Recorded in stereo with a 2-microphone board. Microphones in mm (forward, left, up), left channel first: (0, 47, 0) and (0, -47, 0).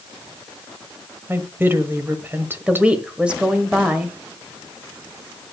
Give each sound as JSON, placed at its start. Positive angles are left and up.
{"t": 1.3, "sound": "a woman speaking", "side_deg": -25, "distance_m": 1.3}
{"t": 2.7, "sound": "a woman speaking", "side_deg": -10, "distance_m": 1.4}